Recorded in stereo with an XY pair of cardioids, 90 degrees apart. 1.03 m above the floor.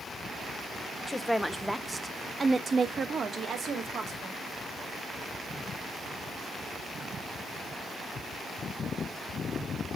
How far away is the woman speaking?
About 0.9 m.